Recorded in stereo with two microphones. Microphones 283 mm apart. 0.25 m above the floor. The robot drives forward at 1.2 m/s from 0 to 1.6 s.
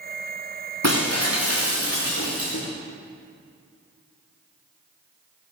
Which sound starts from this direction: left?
Breaking glass, at 0.8 s.